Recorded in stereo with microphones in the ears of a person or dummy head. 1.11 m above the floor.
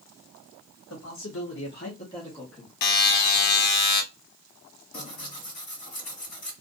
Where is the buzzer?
55° left (ahead or behind), 0.5 m.